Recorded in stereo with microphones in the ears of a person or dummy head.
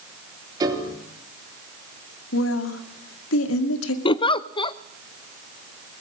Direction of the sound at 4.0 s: 25° left (ahead or behind).